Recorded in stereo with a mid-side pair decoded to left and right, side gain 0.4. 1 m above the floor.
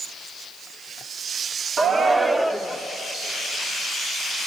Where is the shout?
50° right, 2.0 m; by 2.8 s 5° left, 1.7 m.